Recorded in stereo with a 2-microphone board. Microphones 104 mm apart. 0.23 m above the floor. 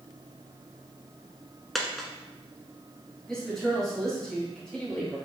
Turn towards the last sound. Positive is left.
turn(degrees=10)  # may be behind; listen again after turning